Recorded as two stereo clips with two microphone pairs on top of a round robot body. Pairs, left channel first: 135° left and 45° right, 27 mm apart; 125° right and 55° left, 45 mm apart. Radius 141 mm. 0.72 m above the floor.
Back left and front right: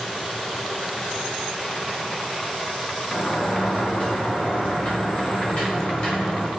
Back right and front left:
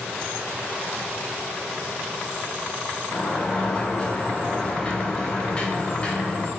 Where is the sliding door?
175° left, 2.5 m.